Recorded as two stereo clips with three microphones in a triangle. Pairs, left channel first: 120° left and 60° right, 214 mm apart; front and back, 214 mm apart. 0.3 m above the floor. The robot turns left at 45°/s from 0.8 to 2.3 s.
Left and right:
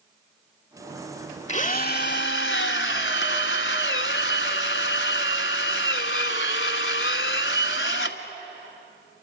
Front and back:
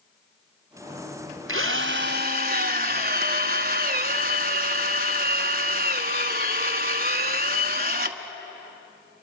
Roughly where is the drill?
Behind.